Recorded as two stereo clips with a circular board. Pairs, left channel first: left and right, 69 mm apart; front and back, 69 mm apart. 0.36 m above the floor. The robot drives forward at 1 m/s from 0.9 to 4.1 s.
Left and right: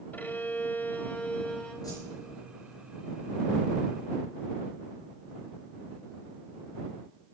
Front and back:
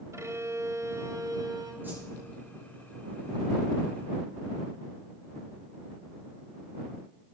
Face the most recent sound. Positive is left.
turn(degrees=135)